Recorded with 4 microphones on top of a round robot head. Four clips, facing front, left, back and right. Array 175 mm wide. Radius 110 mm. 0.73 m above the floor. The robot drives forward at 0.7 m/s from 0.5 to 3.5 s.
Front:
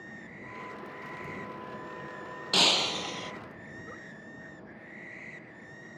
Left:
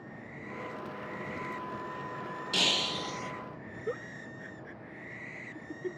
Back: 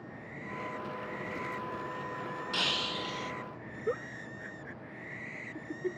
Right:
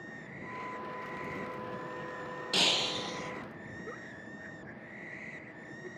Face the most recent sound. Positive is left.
turn(degrees=160)